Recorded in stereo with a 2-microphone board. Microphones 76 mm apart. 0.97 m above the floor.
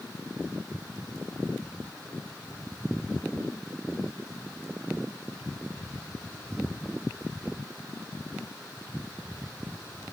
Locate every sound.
Only background noise.